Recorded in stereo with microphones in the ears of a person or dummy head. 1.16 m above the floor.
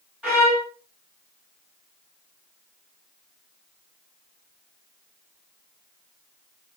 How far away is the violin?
About 2 m.